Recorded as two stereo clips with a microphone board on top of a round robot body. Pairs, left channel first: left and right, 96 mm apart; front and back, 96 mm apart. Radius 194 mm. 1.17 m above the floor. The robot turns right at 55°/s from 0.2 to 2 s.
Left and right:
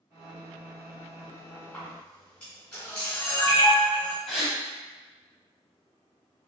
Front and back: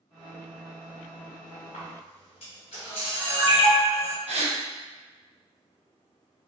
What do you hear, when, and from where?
1.7 s a camera shutter: straight ahead, 1.7 m; by 4.2 s 15° left, 1.7 m
4.3 s a gasp: 175° right, 0.9 m